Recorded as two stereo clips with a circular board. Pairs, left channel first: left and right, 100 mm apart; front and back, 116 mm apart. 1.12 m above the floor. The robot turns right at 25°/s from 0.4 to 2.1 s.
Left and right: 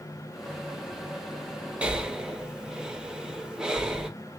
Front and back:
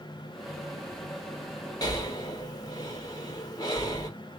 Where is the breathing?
20° right, 0.7 m; by 4.1 s 15° right, 0.7 m.